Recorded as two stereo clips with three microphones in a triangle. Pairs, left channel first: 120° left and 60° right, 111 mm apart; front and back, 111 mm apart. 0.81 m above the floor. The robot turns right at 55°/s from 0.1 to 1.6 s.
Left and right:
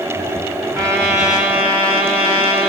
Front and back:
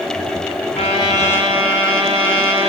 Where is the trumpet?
35° left, 7 m; by 2.7 s 80° left, 7 m.